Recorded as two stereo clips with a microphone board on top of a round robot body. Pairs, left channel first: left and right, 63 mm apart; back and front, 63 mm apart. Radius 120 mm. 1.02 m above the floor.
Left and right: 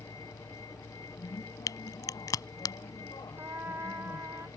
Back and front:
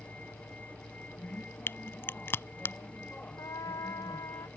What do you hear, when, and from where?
0.0 s a vehicle: 110° left
1.7 s a crack: 125° left
3.4 s a trumpet: 150° right